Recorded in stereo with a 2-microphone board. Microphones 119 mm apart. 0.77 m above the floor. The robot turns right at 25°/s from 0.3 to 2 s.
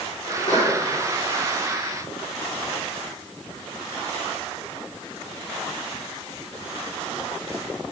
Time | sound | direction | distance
0.3 | a sneeze | 85° left | 7.5 m